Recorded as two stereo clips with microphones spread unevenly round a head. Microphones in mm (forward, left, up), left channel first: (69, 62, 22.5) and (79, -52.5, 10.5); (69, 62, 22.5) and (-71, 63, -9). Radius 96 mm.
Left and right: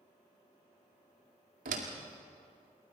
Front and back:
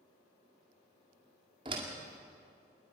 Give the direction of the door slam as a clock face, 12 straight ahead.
4 o'clock.